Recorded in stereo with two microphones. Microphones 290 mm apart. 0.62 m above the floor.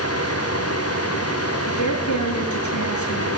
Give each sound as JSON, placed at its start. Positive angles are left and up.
{"t": 1.7, "sound": "a woman speaking", "side_deg": 80, "distance_m": 8.5}